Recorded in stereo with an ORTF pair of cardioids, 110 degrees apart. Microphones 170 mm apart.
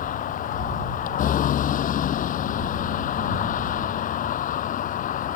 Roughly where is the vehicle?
Ahead left.